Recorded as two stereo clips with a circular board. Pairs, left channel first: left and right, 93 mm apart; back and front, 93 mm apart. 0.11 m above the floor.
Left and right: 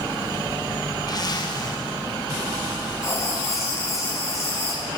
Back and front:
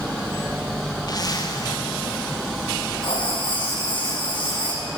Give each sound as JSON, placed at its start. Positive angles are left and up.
{"t": 1.1, "sound": "a zipper", "azimuth_deg": 135, "distance_m": 6.0}
{"t": 3.0, "sound": "writing", "azimuth_deg": 145, "distance_m": 7.5}